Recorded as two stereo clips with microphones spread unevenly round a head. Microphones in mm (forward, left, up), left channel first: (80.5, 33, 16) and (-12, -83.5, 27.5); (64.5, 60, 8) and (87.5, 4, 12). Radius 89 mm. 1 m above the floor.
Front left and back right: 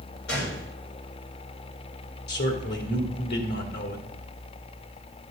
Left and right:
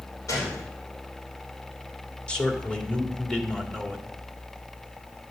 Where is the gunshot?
80° left, 3.5 m.